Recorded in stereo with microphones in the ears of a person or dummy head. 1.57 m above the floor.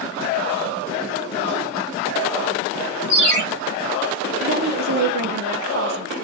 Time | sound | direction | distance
3.1 | a ringtone | 45° right (ahead or behind) | 1.3 m
4.4 | a woman speaking | 45° right (ahead or behind) | 0.5 m